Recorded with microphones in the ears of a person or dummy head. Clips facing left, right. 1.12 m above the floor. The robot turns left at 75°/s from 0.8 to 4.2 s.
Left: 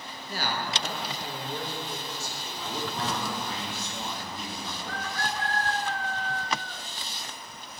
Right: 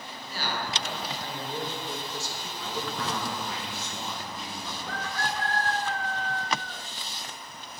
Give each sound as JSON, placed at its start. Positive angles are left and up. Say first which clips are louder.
{"t": 0.3, "sound": "a man speaking", "louder": "left 1 dB", "azimuth_deg": 40, "distance_m": 1.2}
{"t": 2.6, "sound": "a man speaking", "louder": "left 1 dB", "azimuth_deg": 170, "distance_m": 1.9}